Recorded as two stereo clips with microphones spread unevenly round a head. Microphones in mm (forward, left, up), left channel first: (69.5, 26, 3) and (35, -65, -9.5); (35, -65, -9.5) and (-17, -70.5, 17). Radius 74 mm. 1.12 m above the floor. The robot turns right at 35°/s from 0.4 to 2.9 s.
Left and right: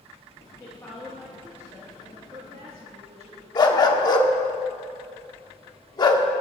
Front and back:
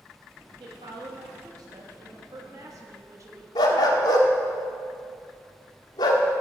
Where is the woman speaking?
140° left, 2.5 m; by 3.5 s 140° right, 2.5 m.